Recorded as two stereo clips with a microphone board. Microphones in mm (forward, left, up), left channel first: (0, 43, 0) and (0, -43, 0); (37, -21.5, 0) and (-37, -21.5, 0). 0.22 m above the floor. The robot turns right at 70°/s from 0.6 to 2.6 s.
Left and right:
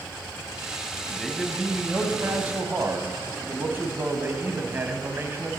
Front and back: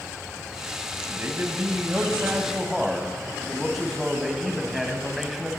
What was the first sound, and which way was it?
A man speaking, 160° left.